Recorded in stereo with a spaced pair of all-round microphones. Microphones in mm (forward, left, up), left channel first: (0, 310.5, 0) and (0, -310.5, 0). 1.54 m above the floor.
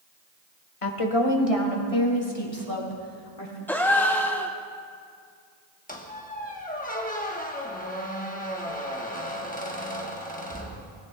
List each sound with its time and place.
0.8 s a woman speaking: 55° left (ahead or behind), 1.3 m; by 3.6 s 65° left (ahead or behind), 4 m
3.7 s a gasp: 5° left (ahead or behind), 0.7 m
5.9 s a squeak: 15° left (ahead or behind), 1.1 m